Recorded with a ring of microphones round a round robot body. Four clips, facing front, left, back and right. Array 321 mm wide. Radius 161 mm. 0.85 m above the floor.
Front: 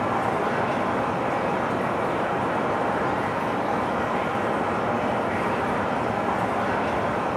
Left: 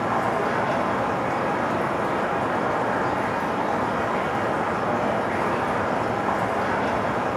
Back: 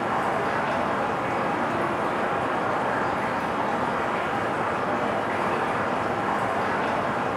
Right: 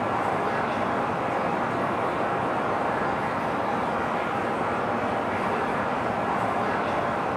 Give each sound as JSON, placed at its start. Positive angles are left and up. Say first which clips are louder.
{"t": 0.0, "sound": "running water", "louder": "left 2 dB, front 1 dB", "azimuth_deg": 105, "distance_m": 2.0}